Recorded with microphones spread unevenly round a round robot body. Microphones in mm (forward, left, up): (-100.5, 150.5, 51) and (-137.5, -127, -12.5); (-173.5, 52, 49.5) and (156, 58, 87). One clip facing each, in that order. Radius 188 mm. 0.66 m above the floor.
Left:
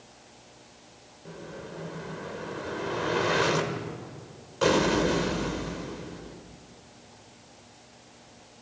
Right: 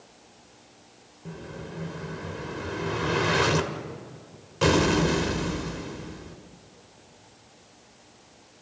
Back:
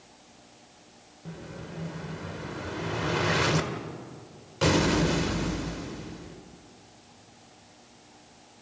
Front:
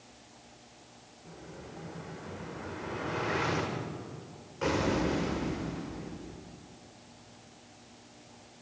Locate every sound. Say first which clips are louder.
1.2 s an explosion: right 2 dB, back 6 dB; 145° right, 2 m